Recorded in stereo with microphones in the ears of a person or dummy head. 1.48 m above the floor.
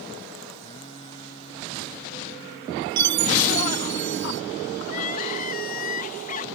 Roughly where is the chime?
Right.